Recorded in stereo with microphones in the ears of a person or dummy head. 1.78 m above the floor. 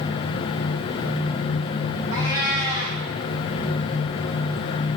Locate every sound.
2.1 s a cat meowing: 20° right (ahead or behind), 5 m